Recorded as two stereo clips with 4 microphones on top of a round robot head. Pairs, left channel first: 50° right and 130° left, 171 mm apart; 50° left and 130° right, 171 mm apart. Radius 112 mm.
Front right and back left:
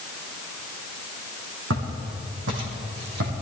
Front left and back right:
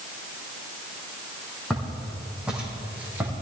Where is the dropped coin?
I don't hear a dropped coin.